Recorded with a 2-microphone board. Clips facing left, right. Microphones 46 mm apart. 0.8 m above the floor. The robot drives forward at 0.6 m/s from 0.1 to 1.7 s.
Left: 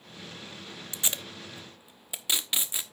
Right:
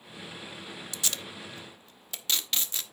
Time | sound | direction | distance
0.9 | tape being pulled | 25° left (ahead or behind) | 0.6 m